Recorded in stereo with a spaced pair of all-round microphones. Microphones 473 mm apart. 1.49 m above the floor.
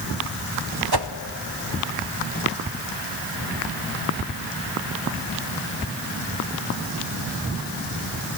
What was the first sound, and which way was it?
A whoosh, 55° right (ahead or behind).